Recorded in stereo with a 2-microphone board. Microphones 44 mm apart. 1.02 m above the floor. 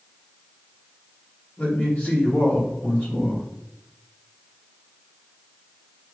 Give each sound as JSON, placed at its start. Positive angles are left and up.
{"t": 1.6, "sound": "a man speaking", "side_deg": 35, "distance_m": 1.3}